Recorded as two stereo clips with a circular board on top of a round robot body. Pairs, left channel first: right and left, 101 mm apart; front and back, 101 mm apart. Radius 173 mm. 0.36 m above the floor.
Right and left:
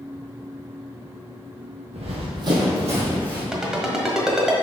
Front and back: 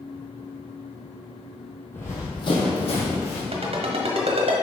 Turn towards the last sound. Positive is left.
turn(degrees=170)